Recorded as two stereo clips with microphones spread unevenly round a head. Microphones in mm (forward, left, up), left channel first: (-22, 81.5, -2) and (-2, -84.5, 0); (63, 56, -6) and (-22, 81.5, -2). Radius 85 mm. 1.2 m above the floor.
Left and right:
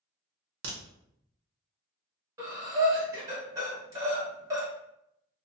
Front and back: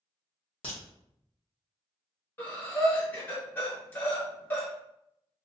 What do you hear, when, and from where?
0.6 s a crack: 75° right, 0.8 m
2.4 s breathing: 45° right, 0.9 m